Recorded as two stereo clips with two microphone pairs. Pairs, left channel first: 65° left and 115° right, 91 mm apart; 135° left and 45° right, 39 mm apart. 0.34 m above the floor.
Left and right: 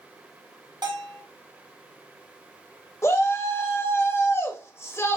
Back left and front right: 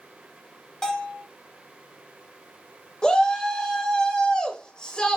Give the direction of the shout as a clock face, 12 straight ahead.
9 o'clock.